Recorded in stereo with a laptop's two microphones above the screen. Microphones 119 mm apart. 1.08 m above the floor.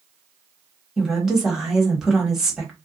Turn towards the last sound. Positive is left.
turn(degrees=-5)  # may be behind; listen again after turning